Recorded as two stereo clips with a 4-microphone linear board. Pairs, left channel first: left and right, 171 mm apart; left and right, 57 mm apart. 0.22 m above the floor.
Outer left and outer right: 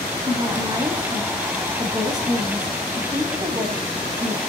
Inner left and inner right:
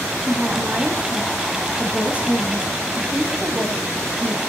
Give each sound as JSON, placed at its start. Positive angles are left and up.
{"t": 0.3, "sound": "a woman speaking", "side_deg": -25, "distance_m": 1.1}